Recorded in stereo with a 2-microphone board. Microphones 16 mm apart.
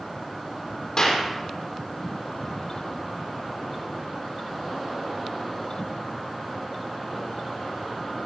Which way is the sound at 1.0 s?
45° left (ahead or behind).